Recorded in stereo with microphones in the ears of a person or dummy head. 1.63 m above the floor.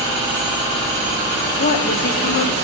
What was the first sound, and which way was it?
A woman speaking, 50° left (ahead or behind).